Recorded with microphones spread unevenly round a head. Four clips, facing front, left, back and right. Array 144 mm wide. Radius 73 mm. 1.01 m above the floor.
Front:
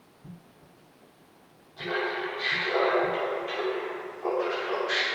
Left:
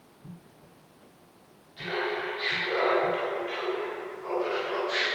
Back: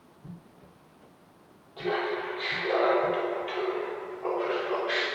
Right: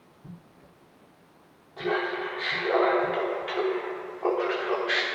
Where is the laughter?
130° right, 2.5 m; by 5.0 s 80° right, 2.5 m.